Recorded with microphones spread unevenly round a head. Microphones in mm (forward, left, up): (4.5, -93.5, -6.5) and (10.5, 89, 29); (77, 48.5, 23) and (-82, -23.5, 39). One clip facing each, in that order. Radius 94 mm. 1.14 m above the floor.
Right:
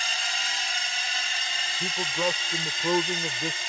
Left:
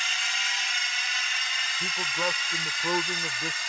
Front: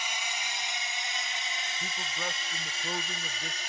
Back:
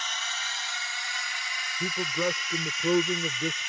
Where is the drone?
50° right; by 3.7 s 30° right.